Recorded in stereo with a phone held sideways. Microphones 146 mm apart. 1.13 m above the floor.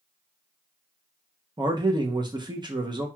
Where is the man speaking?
30° right (ahead or behind), 0.7 m.